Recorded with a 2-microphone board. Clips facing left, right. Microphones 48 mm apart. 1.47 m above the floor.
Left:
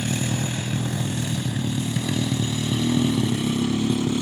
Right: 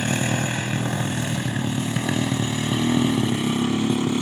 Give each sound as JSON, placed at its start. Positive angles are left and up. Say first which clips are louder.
{"t": 0.0, "sound": "a motorcycle", "louder": "right 3 dB", "side_deg": -50}